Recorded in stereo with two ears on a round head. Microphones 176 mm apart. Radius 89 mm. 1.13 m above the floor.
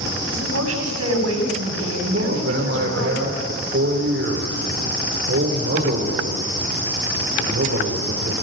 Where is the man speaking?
60° right (ahead or behind), 3.5 m.